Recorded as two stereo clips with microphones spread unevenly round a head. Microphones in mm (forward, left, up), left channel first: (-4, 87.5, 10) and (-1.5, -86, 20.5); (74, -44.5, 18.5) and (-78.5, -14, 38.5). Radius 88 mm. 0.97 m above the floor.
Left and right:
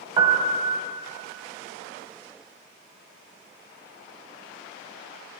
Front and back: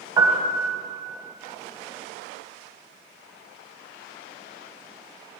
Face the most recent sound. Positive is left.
turn(degrees=-140)